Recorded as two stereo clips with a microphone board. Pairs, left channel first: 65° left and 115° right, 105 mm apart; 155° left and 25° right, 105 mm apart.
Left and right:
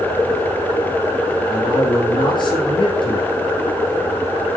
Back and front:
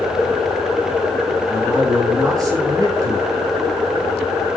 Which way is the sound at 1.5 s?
30° left.